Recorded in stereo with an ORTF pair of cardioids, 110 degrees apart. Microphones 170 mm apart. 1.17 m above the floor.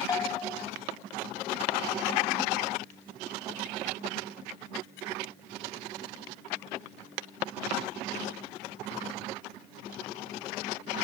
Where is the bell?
20° left, 0.9 m.